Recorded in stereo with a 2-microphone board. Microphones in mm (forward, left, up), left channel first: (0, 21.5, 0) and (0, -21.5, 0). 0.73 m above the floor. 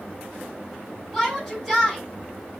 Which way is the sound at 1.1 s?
10° right (ahead or behind).